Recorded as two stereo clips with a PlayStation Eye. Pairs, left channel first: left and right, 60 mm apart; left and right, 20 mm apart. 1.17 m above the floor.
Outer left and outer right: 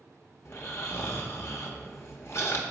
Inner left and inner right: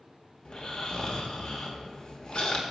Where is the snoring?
45° left (ahead or behind), 1.0 m.